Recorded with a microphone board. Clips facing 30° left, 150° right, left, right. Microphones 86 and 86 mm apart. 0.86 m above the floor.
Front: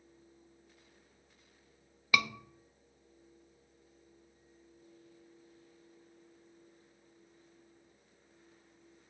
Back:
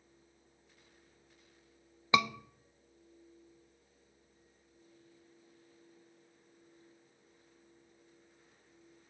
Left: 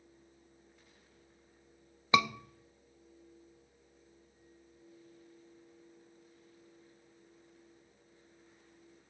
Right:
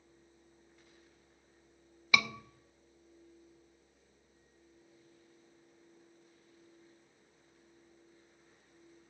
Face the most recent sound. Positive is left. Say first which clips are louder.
# back 3 dB, left 4 dB
turn(degrees=150)